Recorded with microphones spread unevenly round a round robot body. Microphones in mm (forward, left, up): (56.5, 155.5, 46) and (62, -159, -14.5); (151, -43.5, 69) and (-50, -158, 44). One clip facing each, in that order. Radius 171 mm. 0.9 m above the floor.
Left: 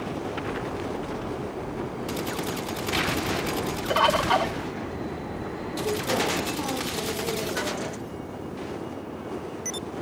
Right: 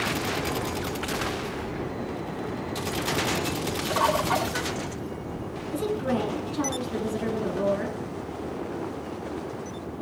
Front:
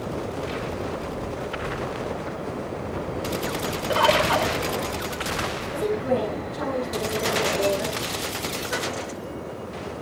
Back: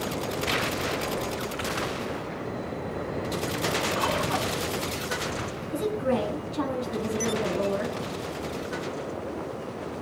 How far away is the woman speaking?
About 8 m.